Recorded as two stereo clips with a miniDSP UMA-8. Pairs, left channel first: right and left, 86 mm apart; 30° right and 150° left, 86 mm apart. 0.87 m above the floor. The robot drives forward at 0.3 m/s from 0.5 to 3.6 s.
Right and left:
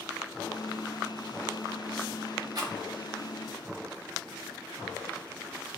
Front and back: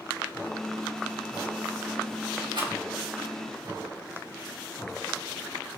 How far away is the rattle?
About 0.8 m.